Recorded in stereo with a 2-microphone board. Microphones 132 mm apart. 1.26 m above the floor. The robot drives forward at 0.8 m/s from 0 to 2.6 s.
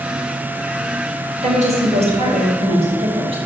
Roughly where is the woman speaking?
Right.